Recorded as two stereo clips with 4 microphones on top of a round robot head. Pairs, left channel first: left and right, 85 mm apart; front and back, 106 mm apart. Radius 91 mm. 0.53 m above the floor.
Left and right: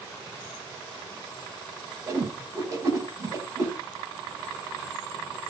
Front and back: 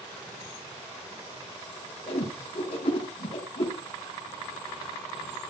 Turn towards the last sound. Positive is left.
turn(degrees=-40)